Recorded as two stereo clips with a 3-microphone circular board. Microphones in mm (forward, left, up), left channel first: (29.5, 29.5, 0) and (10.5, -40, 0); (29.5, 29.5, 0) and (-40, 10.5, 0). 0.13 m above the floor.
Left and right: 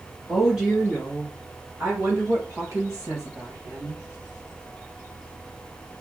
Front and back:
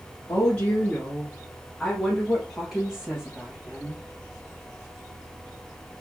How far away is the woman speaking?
About 1.4 m.